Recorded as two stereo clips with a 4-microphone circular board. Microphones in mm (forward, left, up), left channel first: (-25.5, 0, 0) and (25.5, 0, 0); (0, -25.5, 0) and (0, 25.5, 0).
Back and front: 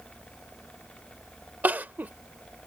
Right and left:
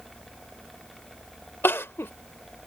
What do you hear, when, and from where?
1.6 s crying: 55° right